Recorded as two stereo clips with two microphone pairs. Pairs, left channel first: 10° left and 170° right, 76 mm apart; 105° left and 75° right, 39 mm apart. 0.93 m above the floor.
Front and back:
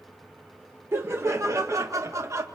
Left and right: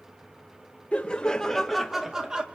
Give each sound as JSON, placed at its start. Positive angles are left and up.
{"t": 0.9, "sound": "laughter", "azimuth_deg": 150, "distance_m": 0.9}